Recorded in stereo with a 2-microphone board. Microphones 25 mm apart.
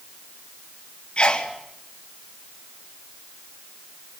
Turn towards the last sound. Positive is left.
turn(degrees=40)  # may be behind; listen again after turning